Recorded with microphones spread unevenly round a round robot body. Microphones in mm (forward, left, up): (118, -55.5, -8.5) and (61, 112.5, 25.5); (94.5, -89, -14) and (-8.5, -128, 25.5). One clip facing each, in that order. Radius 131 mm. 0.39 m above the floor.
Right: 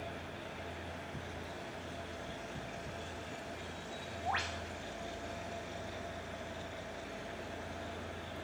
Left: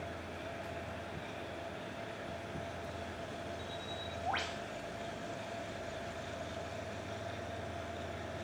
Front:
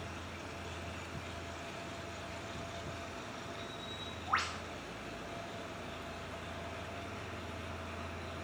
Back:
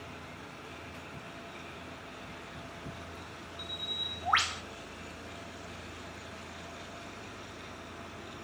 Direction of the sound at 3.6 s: 160° right.